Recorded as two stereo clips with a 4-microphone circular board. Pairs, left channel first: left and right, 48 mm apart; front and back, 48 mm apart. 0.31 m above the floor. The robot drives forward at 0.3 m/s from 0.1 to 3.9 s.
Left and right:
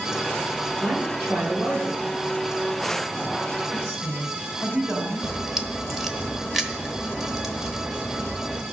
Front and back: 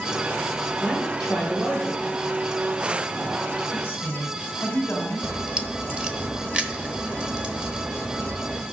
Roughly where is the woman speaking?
Ahead right.